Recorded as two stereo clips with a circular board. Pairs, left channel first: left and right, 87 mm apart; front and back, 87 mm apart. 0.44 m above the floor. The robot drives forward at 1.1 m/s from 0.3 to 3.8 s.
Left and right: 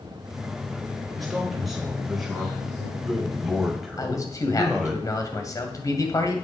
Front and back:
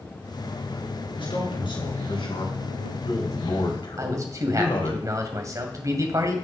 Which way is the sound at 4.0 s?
135° left.